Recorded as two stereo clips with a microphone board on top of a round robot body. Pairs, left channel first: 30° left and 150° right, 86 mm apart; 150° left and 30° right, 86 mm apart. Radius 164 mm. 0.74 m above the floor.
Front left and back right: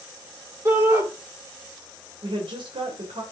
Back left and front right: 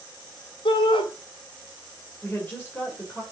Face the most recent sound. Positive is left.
turn(degrees=-145)